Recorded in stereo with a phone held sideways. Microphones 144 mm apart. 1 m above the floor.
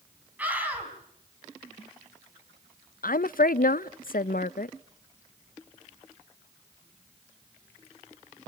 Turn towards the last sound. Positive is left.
turn(degrees=75)  # may be behind; listen again after turning